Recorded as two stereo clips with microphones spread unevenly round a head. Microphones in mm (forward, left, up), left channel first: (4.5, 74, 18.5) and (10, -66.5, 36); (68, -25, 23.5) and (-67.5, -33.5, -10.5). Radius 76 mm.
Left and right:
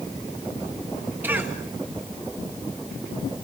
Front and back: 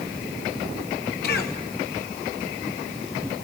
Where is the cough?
10° right, 1.8 m.